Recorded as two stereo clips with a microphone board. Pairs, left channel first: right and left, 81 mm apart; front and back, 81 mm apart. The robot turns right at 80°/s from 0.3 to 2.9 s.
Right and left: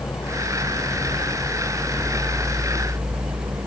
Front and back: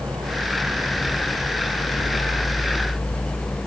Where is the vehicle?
135° right; by 3.7 s 75° left.